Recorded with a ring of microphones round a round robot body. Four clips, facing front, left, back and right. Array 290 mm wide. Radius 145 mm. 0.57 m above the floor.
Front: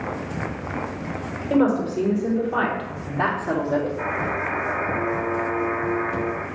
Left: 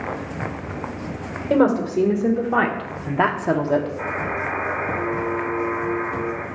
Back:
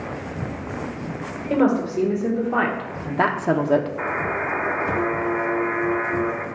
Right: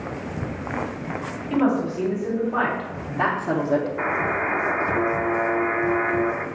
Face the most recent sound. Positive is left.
turn(degrees=-120)